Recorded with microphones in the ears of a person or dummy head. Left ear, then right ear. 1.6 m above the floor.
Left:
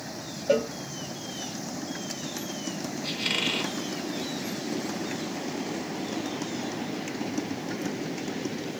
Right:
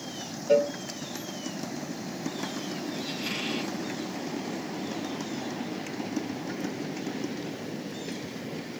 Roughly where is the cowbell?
Left.